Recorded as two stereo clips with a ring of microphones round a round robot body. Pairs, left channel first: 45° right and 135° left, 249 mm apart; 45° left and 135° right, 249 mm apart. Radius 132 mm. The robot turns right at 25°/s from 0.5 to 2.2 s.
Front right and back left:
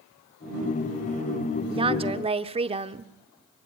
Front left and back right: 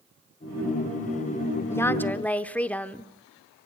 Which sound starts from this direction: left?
A woman speaking, at 1.7 s.